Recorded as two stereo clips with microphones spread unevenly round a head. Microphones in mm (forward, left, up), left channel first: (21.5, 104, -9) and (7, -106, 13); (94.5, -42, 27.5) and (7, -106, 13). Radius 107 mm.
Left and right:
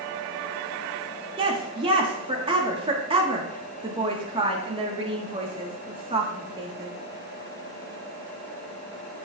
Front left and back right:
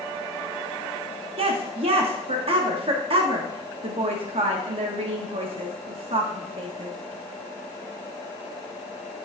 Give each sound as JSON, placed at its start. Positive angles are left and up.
{"t": 1.4, "sound": "a woman speaking", "azimuth_deg": -160, "distance_m": 1.3}